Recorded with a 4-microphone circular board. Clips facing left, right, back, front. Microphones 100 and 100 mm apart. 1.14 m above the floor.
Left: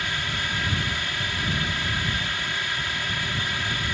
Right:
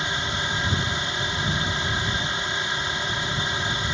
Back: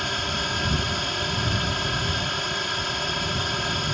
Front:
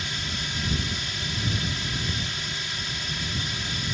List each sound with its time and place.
0.0 s a drone: 155° right